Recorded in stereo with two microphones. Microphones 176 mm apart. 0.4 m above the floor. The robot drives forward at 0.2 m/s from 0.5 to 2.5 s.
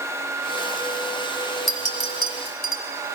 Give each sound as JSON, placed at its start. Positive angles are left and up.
{"t": 1.7, "sound": "a clink", "side_deg": 60, "distance_m": 1.6}